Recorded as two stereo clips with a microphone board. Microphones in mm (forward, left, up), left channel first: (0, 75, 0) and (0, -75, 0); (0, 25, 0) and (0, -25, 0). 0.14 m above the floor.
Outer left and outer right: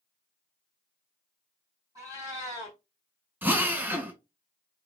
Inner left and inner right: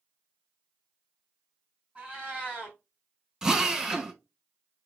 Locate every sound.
1.9 s a cat meowing: 25° right (ahead or behind), 2.0 m
3.4 s a drill: 15° right (ahead or behind), 0.5 m